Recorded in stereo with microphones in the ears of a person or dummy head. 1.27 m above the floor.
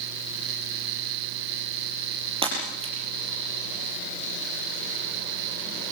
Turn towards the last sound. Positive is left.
turn(degrees=-35)  # may be behind; listen again after turning